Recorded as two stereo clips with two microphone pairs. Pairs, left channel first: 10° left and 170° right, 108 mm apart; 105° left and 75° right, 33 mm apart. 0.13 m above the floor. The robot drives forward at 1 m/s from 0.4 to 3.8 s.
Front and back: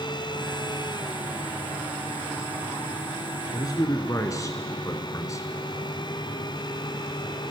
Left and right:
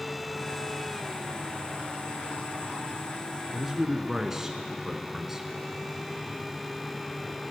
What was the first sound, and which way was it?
A man speaking, 5° right.